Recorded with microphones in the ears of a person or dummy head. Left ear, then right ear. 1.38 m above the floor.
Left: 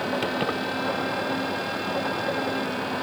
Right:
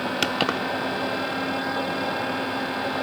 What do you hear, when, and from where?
0.2 s keys jangling: 50° right (ahead or behind)